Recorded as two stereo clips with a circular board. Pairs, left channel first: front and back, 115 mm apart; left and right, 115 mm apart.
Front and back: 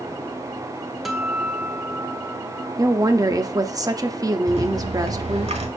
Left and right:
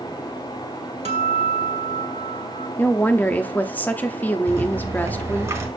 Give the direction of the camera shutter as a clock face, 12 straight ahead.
I don't hear a camera shutter.